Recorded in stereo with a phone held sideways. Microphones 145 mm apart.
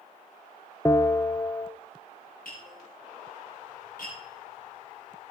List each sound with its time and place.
0.8 s a bell: 20° left (ahead or behind), 0.6 m
2.5 s tapping: 75° left (ahead or behind), 8.5 m